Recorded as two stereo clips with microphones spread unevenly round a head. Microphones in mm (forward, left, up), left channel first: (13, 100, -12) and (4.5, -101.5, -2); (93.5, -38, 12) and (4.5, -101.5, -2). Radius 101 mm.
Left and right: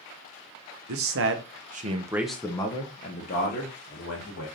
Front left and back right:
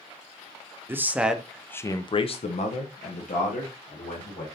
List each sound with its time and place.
0.9 s a man speaking: 75° right, 1.0 m; by 4.5 s 50° left, 1.9 m